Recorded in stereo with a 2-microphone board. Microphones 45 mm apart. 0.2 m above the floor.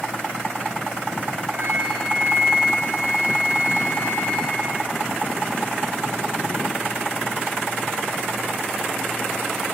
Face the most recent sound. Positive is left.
turn(degrees=-80)